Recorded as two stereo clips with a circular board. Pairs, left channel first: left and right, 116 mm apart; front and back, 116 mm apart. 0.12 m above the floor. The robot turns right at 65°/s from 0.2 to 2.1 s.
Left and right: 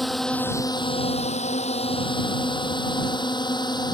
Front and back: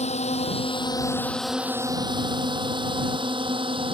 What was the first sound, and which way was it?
A drone, straight ahead.